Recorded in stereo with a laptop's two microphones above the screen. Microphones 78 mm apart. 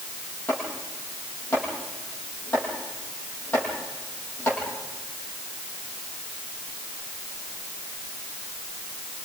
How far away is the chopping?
About 8 m.